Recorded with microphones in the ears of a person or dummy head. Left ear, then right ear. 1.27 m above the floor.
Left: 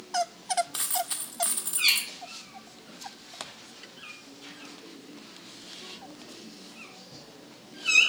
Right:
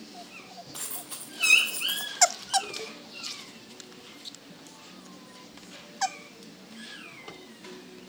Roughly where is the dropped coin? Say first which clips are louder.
Left 9 dB; left.